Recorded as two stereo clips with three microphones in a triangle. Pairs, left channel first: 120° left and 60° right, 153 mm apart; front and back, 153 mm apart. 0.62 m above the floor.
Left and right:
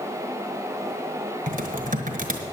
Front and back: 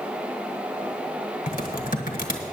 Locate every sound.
1.5 s typing on a keyboard: 30° right, 1.5 m